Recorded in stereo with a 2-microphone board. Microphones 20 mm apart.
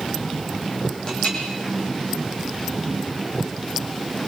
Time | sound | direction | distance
1.1 | a clink | 40° left (ahead or behind) | 6.5 m